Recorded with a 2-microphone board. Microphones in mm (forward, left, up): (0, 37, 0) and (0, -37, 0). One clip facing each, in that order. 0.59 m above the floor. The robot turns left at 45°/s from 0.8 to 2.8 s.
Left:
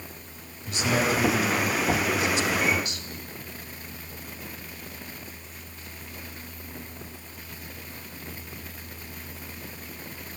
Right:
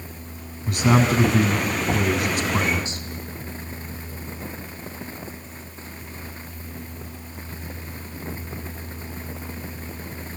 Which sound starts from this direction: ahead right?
A man speaking, at 0.7 s.